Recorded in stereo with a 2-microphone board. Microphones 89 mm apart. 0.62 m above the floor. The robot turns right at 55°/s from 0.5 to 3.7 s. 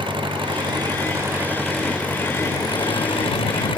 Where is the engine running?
70° right; by 3.8 s 105° left.